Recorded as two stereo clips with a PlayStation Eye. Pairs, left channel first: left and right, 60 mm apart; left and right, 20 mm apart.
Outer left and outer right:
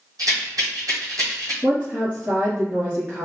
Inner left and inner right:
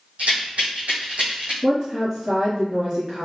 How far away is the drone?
I don't hear a drone.